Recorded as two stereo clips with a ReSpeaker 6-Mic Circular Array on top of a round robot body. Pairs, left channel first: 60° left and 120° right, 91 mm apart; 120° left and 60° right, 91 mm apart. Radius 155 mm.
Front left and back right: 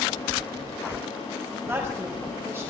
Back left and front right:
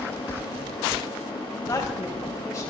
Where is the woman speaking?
175° left, 5 m.